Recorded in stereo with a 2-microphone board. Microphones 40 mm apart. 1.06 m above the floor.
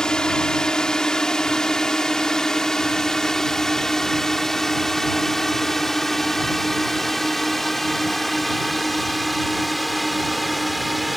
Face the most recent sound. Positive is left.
turn(degrees=0)  # may be behind; listen again after turning